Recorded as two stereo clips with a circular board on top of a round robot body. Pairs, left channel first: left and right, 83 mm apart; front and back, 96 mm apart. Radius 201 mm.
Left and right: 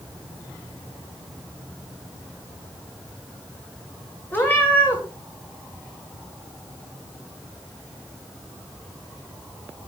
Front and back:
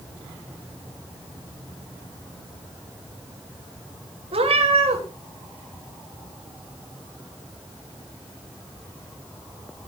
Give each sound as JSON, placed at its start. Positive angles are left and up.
{"t": 4.3, "sound": "a cat meowing", "azimuth_deg": 160, "distance_m": 0.9}